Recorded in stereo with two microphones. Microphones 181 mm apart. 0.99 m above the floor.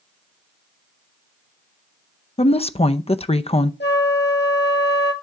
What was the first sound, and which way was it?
A woman speaking, 35° left (ahead or behind).